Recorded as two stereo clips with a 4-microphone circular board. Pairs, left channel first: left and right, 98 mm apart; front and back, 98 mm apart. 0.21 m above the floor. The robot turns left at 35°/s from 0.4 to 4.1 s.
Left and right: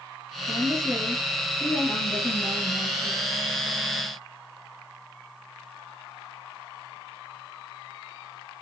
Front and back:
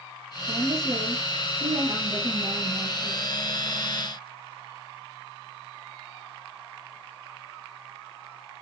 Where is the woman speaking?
135° right, 1.3 m; by 3.2 s 125° left, 1.3 m.